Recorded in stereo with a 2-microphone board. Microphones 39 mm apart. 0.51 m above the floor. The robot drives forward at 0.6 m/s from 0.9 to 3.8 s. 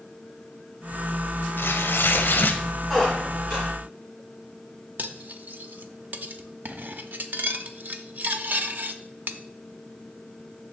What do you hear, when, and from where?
1.6 s tearing paper: 80° left, 0.8 m; by 2.6 s 55° left (ahead or behind), 1.0 m
2.9 s a squeak: centre (ahead or behind), 4 m
5.0 s cutlery clinking: 50° right (ahead or behind), 0.6 m